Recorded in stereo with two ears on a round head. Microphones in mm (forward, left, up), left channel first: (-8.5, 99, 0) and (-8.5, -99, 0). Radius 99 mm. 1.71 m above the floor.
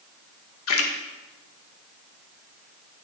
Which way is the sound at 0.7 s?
65° left (ahead or behind).